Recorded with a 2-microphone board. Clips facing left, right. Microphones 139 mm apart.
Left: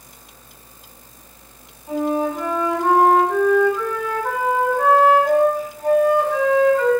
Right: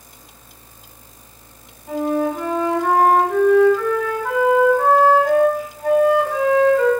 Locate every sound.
1.9 s a flute: 10° right (ahead or behind), 2 m